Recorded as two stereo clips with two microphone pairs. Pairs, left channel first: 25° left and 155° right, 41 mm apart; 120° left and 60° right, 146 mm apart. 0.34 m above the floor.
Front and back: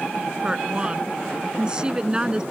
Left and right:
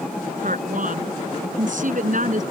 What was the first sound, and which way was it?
A woman speaking, 90° right.